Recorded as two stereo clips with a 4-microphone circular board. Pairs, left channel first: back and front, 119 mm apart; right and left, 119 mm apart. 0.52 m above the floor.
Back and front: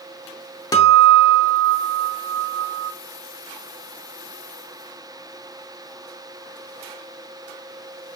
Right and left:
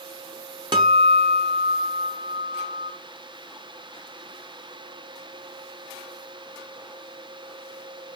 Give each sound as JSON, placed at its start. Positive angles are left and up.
{"t": 0.7, "sound": "a guitar", "azimuth_deg": 130, "distance_m": 0.6}